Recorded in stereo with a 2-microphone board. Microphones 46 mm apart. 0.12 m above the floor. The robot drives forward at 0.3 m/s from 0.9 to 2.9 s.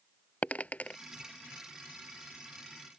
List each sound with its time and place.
0.4 s a dropped coin: 35° left (ahead or behind); by 1.0 s 30° left (ahead or behind)